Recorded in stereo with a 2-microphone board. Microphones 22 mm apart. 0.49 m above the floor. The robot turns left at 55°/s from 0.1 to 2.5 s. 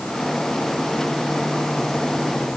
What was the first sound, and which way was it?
Only background noise.